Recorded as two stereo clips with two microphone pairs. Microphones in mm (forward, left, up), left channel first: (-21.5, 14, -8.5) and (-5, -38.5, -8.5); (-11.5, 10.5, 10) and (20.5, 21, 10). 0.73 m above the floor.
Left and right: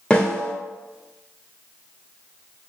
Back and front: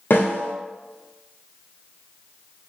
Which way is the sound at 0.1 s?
175° right.